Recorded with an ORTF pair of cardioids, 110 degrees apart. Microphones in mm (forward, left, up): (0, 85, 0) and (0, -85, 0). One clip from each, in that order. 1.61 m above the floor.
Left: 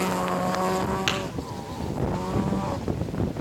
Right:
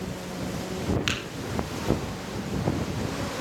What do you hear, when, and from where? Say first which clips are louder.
1.1 s tapping: left 2 dB; 10° left, 3.5 m